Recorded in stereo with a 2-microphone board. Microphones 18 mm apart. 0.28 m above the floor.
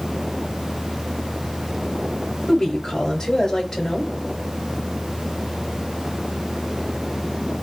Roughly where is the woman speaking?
Left.